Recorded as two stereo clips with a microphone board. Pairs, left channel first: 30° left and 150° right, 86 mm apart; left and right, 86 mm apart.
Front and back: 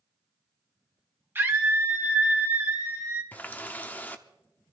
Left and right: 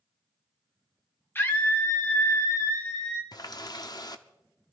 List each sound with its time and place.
1.4 s a scream: 150° left, 2.0 m; by 3.2 s 140° left, 4 m
3.3 s a running tap: 90° left, 0.8 m